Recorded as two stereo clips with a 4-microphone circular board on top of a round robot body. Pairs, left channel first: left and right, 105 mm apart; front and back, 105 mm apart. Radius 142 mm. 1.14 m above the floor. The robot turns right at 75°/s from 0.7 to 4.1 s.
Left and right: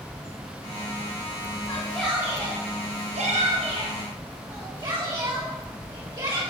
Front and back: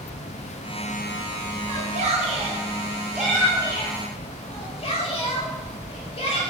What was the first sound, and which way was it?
A shout, 140° left.